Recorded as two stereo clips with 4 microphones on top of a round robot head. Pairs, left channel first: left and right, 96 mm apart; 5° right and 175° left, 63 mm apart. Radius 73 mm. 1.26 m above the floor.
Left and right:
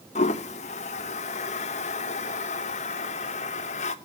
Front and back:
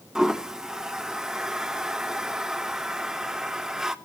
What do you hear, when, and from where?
0.1 s a toilet flushing: 95° left, 0.9 m